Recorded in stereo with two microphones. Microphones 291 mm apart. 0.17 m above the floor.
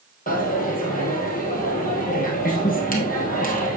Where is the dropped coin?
30° left (ahead or behind), 1.9 m.